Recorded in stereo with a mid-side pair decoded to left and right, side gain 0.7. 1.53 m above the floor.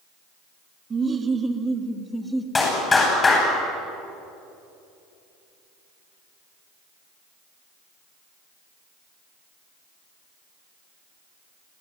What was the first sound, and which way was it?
Laughter, 25° right.